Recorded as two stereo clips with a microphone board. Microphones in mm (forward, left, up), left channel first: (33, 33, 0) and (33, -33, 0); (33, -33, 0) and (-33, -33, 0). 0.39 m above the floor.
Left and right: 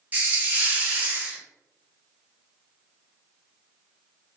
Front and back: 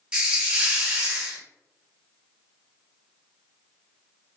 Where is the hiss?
120° right, 1.1 m.